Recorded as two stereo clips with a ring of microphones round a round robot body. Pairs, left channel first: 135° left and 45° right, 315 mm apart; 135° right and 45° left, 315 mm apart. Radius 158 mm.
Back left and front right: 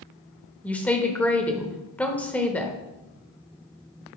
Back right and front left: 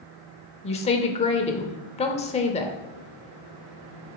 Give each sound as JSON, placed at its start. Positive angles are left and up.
{"t": 0.6, "sound": "a woman speaking", "azimuth_deg": -150, "distance_m": 0.8}